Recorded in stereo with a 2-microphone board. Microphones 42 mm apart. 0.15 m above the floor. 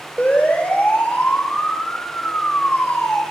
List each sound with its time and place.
0.2 s a siren: 40° left (ahead or behind), 7 m; by 3.2 s 55° left (ahead or behind), 5.5 m